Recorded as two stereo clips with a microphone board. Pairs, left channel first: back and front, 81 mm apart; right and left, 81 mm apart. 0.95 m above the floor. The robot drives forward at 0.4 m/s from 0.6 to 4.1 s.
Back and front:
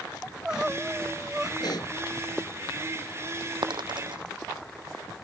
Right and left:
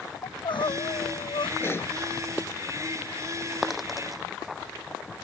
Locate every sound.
0.2 s crying: 80° right; by 1.5 s 85° right
1.6 s a pop: 150° right
3.6 s a dropped coin: straight ahead